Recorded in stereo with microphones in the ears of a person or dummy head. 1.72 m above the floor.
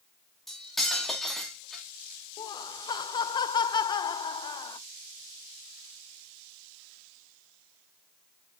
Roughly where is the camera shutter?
No camera shutter in this recording.